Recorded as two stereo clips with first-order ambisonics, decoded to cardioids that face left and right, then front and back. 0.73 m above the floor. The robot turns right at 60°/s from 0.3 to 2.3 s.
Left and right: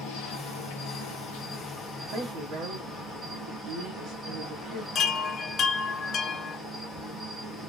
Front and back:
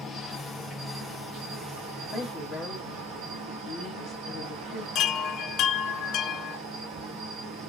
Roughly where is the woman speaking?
Right.